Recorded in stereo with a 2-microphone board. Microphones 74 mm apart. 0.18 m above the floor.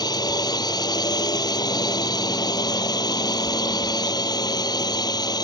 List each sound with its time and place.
0.0 s a drone: 65° left (ahead or behind)